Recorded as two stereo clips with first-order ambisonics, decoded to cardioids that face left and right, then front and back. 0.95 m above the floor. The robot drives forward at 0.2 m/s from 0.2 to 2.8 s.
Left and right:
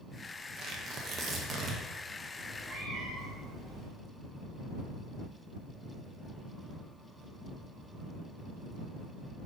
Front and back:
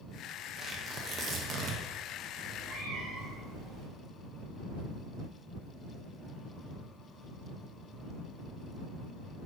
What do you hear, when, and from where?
0.6 s tearing paper: 120° right, 0.6 m; by 1.8 s 140° right, 0.7 m
2.4 s a cat meowing: 145° right, 1.0 m; by 3.9 s 150° right, 1.1 m